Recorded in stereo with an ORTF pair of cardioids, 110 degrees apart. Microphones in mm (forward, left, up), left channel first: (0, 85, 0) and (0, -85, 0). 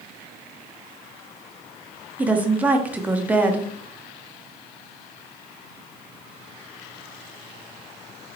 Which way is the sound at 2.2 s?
10° right.